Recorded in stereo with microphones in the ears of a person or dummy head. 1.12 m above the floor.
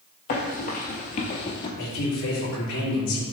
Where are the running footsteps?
45° left (ahead or behind), 1.7 m; by 1.7 s 30° left (ahead or behind), 1.3 m.